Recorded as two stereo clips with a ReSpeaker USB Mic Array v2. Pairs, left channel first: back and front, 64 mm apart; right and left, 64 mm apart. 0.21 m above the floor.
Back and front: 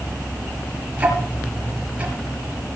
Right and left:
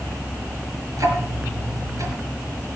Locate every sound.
1.0 s ticking: 65° left, 4 m